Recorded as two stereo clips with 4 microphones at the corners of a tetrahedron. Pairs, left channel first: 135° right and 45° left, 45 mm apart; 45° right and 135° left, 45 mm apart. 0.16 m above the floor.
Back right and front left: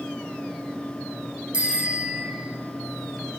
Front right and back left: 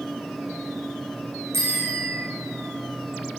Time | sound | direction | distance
1.5 | a bicycle bell | 110° left | 7.5 m